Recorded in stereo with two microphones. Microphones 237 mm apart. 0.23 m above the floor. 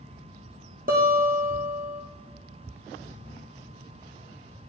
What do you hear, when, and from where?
0.9 s a guitar: 40° right (ahead or behind), 2.5 m